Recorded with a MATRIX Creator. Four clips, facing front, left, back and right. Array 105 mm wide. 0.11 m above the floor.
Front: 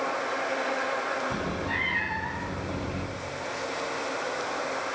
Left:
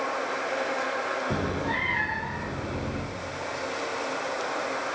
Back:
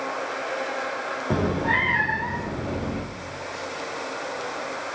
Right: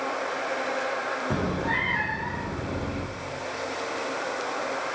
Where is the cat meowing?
175° right, 2 m; by 3.0 s 165° right, 3 m.